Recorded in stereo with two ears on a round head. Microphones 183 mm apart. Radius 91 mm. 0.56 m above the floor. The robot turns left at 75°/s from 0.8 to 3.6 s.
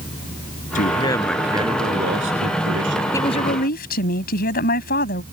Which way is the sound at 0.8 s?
40° left.